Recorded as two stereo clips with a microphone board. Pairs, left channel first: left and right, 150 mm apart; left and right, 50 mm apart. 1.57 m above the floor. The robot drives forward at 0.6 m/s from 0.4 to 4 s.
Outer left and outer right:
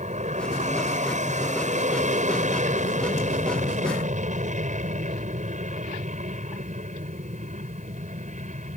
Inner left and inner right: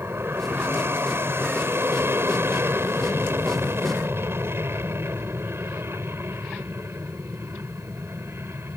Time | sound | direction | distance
0.0 | an aircraft | 55° right (ahead or behind) | ?